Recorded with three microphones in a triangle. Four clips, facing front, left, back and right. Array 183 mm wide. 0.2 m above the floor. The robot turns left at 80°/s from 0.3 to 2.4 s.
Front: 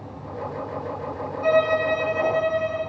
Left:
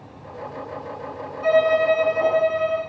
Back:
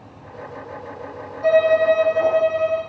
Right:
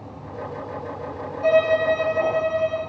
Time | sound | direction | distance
1.4 | a violin | 125° right | 9 m